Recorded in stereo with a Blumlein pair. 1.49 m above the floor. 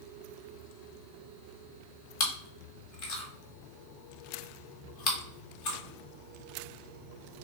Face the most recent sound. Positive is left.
turn(degrees=45)